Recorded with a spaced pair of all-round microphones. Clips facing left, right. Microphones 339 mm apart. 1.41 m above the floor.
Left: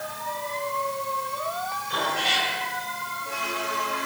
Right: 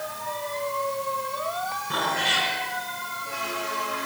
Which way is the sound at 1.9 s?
65° right (ahead or behind).